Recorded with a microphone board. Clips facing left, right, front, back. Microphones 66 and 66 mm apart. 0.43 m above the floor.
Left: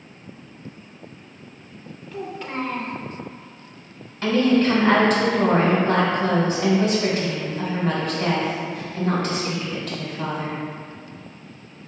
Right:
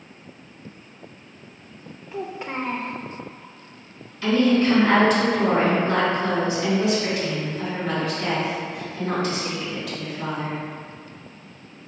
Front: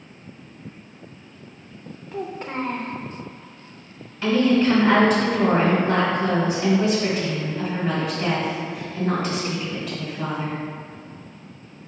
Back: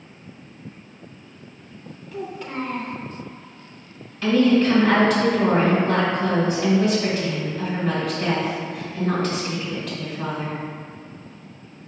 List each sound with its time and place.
2.1 s a child speaking: 30° right, 0.5 m
4.2 s a woman speaking: 65° left, 1.4 m